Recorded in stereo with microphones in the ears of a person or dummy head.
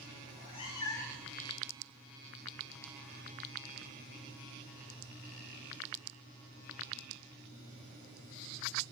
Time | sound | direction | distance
0.3 | a cat meowing | 40° left (ahead or behind) | 0.8 m